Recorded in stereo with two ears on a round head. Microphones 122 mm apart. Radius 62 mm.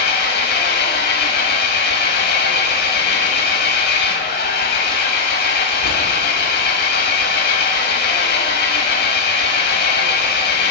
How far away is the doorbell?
No doorbell in this recording.